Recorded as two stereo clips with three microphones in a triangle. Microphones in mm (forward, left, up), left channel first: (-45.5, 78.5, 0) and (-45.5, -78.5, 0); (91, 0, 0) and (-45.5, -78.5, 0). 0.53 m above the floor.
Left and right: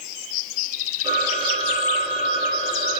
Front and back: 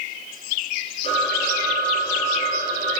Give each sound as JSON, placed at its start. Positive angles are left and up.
{"t": 1.0, "sound": "a phone ringing", "azimuth_deg": -25, "distance_m": 6.5}